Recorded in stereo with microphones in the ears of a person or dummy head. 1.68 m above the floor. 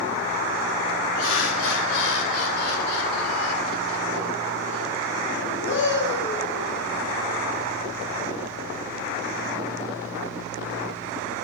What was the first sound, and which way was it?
Laughter, 80° left.